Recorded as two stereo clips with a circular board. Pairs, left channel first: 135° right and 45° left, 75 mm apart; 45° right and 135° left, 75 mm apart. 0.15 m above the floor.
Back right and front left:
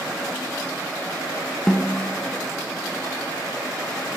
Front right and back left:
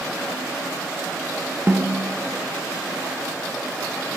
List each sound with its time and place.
1.7 s a snare drum: 140° left, 1.3 m